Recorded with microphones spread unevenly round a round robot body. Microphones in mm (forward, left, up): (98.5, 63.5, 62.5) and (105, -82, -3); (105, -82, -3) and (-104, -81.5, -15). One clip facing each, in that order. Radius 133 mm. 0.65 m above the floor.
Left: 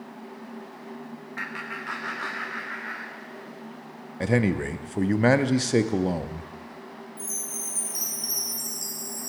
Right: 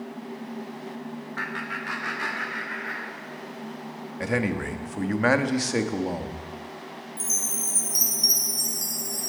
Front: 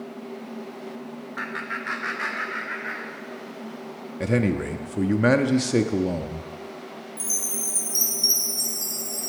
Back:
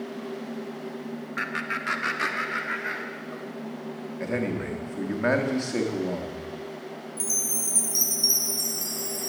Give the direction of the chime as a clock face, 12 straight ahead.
3 o'clock.